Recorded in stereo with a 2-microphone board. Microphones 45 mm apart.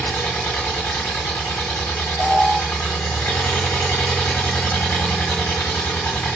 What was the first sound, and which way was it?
An engine running, 55° left (ahead or behind).